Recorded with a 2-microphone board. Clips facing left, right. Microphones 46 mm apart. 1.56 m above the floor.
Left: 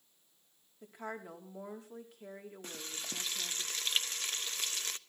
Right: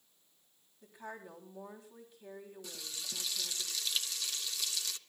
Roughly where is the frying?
Left.